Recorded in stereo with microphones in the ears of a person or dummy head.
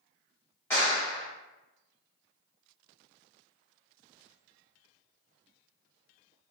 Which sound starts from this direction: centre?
A clap, at 0.7 s.